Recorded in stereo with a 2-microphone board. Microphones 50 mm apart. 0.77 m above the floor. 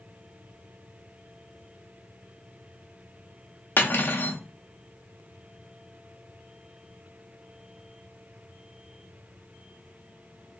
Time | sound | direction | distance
3.8 | cutlery clinking | 50° left (ahead or behind) | 0.5 m